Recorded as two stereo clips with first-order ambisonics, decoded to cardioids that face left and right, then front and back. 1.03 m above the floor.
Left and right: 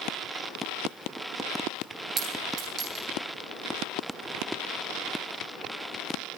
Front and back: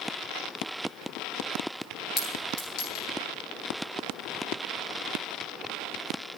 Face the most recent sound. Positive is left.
turn(degrees=-45)